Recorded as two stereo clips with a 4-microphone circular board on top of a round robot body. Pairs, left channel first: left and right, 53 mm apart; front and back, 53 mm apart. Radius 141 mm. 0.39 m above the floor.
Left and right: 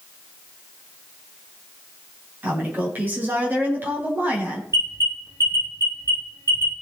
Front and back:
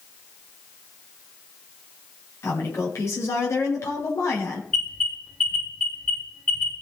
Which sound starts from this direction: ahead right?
A woman speaking, at 2.4 s.